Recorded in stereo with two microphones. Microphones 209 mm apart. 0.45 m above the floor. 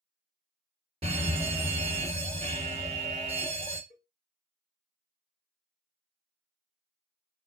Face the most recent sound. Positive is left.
turn(degrees=55)  # may be behind; listen again after turning